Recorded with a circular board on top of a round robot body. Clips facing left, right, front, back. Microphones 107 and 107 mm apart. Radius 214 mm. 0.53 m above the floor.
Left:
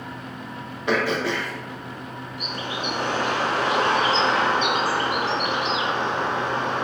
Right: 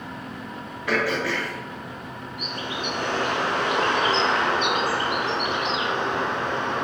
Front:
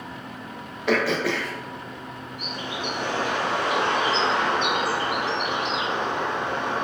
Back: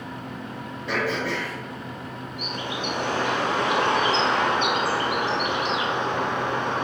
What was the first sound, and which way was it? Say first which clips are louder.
Throat clearing: left 2 dB, front 4 dB; 20° left.